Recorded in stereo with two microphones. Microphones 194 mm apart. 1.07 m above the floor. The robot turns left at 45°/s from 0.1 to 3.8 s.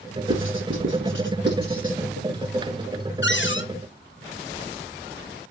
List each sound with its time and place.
0.3 s writing: 65° right (ahead or behind), 3 m; by 1.9 s 40° right (ahead or behind), 3 m
3.2 s a cupboard door: 60° left (ahead or behind), 1.0 m; by 3.7 s 70° left (ahead or behind), 1.0 m